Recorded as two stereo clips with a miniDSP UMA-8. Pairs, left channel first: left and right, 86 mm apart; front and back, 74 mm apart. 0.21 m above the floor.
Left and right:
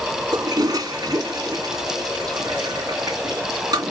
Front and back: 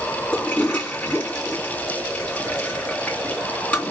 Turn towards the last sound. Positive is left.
turn(degrees=-70)